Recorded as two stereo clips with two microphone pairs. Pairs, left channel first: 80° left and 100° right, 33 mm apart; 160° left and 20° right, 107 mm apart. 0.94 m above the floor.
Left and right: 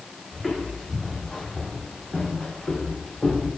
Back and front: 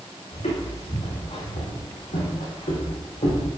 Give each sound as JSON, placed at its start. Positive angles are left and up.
{"t": 0.3, "sound": "footsteps", "azimuth_deg": 155, "distance_m": 4.0}